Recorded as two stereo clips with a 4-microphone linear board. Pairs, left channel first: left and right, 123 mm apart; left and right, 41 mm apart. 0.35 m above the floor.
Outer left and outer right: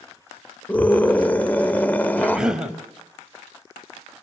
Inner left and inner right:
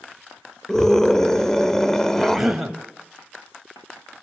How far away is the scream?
About 1.0 m.